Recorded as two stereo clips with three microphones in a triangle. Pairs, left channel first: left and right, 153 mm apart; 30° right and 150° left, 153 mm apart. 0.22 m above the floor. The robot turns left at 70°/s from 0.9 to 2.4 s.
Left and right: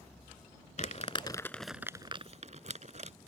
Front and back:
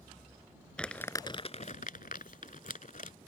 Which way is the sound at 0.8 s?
55° left.